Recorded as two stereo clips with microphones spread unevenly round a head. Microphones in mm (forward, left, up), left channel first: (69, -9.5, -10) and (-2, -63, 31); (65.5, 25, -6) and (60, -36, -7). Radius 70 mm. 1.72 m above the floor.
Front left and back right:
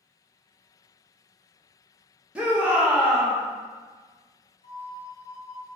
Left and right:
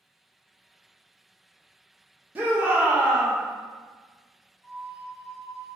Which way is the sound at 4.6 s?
35° left.